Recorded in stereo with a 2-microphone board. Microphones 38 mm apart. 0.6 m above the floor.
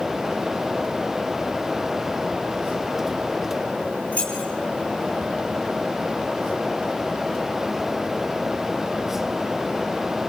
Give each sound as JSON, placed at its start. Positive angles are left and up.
{"t": 4.1, "sound": "keys jangling", "side_deg": 35, "distance_m": 6.0}